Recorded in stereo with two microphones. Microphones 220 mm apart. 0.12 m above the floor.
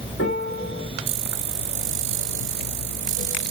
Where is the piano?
75° left (ahead or behind), 3 m.